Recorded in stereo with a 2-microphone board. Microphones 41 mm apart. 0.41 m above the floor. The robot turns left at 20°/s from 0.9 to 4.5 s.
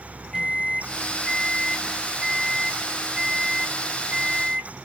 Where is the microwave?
10° right, 1.9 m; by 4.7 s 80° right, 1.9 m.